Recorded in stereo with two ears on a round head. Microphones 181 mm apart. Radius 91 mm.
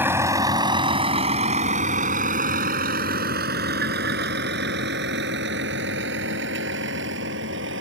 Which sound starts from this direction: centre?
A vehicle, at 0.0 s.